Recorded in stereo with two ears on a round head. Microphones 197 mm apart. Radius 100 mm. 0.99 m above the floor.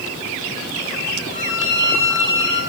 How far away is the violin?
About 3.5 m.